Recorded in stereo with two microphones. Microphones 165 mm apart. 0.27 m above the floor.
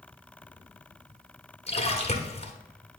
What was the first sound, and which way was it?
A splash, 40° left (ahead or behind).